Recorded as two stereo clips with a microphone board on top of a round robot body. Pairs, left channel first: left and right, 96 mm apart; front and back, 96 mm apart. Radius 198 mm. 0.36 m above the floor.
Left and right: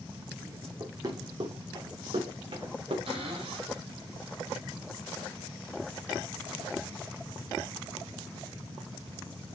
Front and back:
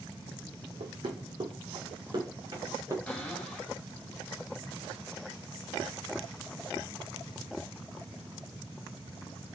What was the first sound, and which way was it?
Running footsteps, 150° right.